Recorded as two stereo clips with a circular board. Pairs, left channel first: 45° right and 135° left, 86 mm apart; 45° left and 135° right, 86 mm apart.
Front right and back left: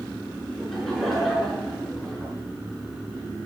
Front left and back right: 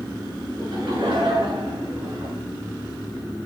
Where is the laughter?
135° right, 5 m; by 2.3 s 130° right, 3.5 m.